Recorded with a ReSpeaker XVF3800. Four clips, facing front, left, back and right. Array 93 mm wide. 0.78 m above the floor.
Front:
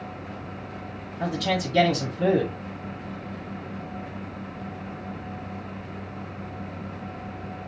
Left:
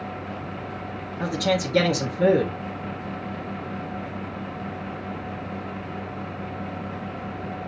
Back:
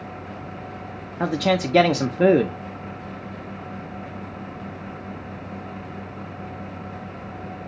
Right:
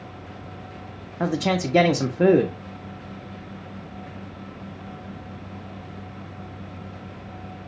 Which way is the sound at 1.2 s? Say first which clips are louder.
Right 1 dB, back 5 dB; 150° right.